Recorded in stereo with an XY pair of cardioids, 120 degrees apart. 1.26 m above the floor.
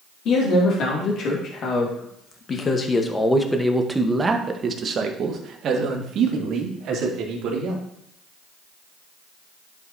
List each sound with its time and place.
0.2 s a man speaking: 65° left, 2.5 m; by 7.8 s 75° right, 3 m